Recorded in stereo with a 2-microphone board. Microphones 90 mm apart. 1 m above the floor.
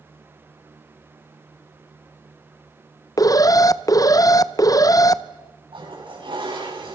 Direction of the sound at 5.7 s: 70° right (ahead or behind).